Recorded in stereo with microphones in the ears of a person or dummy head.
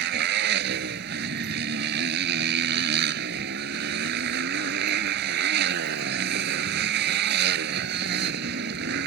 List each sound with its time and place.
0.0 s a motorcycle: 70° right (ahead or behind)